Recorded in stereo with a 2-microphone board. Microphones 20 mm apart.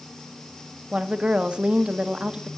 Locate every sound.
0.9 s a woman speaking: 60° right (ahead or behind), 0.9 m